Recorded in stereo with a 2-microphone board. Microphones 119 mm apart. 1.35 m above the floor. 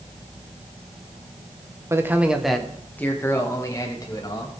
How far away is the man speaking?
About 1.2 m.